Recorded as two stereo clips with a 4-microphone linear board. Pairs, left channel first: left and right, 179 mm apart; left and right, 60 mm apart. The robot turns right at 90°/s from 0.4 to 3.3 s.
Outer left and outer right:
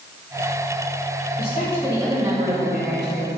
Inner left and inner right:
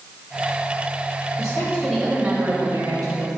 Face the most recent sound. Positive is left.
turn(degrees=-50)